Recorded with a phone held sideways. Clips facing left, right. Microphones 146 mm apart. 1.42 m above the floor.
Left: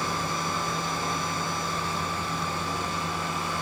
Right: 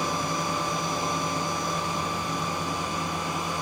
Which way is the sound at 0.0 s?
15° right (ahead or behind).